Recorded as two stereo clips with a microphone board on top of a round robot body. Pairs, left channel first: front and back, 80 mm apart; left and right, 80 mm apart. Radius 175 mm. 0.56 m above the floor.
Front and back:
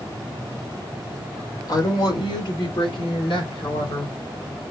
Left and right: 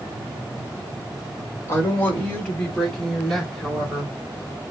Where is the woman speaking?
30° left, 2.5 m; by 4.1 s 10° right, 4 m.